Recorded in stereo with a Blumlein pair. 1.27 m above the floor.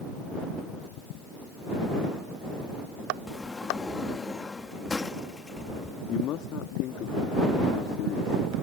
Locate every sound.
3.3 s a sliding door: 10° left
6.1 s a man speaking: 35° left